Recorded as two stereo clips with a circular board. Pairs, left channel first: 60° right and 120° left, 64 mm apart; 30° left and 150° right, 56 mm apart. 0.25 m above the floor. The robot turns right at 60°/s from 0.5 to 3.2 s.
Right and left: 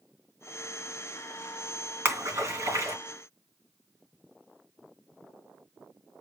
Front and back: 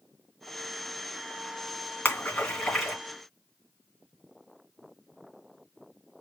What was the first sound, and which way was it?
A splash, 70° left.